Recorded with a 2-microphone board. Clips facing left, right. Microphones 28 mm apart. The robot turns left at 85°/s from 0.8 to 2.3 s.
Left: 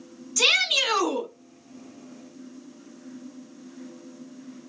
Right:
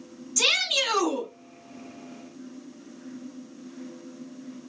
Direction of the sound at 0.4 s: 15° left (ahead or behind).